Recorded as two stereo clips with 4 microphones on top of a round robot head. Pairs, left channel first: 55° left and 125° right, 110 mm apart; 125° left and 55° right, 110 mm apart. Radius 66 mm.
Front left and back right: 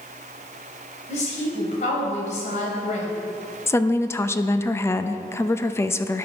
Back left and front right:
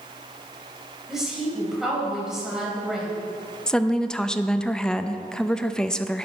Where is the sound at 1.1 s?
30° left, 3.5 m.